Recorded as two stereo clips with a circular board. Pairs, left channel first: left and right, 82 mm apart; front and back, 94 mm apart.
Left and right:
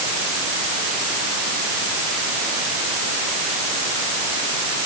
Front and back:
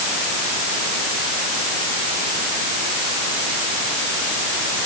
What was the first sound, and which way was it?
Only background noise.